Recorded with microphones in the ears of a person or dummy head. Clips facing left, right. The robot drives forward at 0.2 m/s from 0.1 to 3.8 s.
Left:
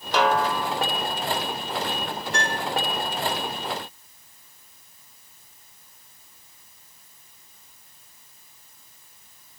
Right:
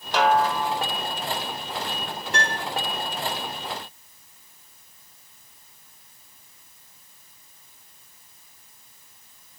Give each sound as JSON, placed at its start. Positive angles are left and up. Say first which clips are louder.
{"t": 0.1, "sound": "a snare drum", "louder": "right 1 dB", "side_deg": 60, "distance_m": 1.3}
{"t": 2.3, "sound": "a piano", "louder": "even", "side_deg": -50, "distance_m": 2.5}